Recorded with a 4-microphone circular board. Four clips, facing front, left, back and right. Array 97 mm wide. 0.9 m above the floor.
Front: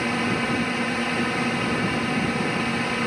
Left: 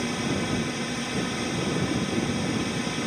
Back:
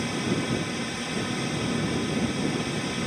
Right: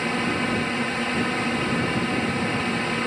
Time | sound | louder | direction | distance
0.0 | a drone | right 3 dB, front 3 dB | 40° right | ?